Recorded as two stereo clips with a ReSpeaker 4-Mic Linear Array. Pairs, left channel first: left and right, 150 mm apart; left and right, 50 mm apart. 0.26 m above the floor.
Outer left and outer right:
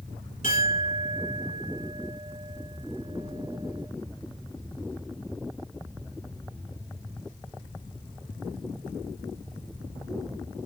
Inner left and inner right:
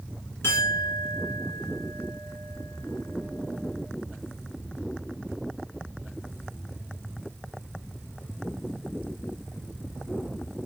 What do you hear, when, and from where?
0.4 s a clink: 55° left (ahead or behind), 1.8 m